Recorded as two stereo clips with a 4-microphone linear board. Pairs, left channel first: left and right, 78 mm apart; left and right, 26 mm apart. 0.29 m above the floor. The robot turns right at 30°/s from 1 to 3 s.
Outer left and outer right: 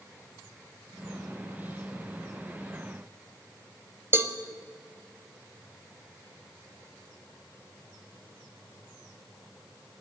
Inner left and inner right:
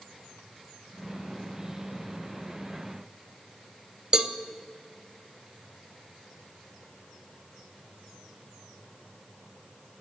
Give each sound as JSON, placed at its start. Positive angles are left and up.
{"t": 4.1, "sound": "a cowbell", "side_deg": -35, "distance_m": 0.5}